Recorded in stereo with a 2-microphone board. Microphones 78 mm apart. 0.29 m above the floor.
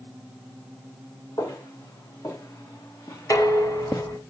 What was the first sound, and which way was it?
Footsteps, 55° left (ahead or behind).